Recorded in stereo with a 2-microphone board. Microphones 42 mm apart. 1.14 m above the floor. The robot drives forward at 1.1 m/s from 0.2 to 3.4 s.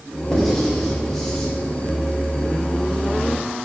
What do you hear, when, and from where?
0.3 s writing: 5° left (ahead or behind), 4 m; by 1.5 s 10° left (ahead or behind), 3 m